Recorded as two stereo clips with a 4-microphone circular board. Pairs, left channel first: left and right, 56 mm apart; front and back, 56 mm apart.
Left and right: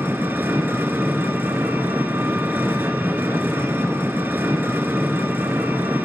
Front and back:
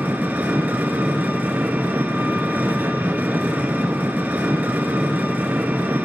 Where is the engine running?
125° right, 1.2 m.